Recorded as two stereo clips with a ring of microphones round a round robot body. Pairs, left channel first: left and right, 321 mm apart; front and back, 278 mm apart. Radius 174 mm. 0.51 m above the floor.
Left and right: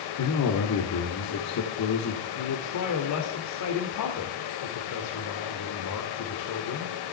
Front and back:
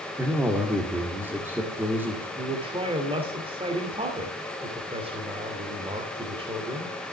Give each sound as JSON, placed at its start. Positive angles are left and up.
{"t": 0.2, "sound": "a man speaking", "azimuth_deg": 100, "distance_m": 2.0}
{"t": 2.4, "sound": "a man speaking", "azimuth_deg": 110, "distance_m": 2.0}